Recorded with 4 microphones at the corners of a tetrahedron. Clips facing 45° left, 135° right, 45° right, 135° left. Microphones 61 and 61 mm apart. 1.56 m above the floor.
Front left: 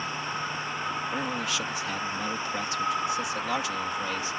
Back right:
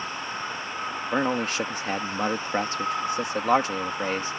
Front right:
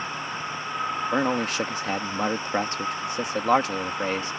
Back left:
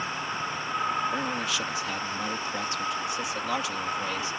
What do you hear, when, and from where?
1.1 s a man speaking: 90° right